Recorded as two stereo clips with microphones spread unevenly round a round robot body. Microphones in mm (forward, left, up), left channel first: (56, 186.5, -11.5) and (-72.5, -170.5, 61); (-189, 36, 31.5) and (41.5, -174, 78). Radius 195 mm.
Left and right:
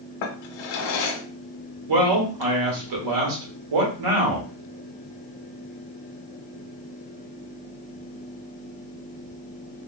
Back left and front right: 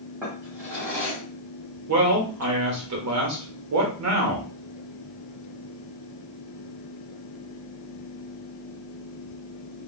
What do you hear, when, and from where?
0.2 s a drawer: 45° left, 0.7 m
1.9 s a man speaking: 75° right, 1.4 m